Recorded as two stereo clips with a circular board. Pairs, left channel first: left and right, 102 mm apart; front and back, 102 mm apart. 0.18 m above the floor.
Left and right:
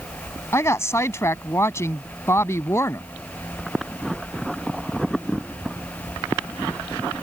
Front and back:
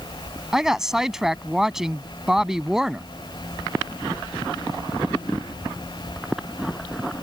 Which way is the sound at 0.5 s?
100° left.